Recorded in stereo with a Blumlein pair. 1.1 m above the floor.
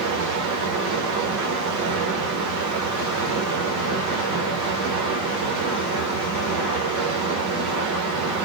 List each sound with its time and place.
0.0 s running water: 40° right, 1.0 m